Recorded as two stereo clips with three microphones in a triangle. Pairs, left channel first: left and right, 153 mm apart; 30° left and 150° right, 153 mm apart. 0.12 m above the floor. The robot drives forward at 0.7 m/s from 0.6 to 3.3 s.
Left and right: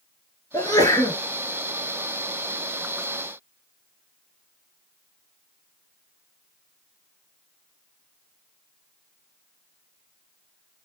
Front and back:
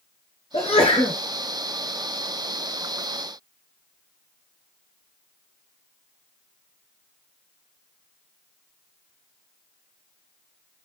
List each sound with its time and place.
0.5 s a sneeze: 35° left, 1.5 m; by 1.2 s 50° left, 1.3 m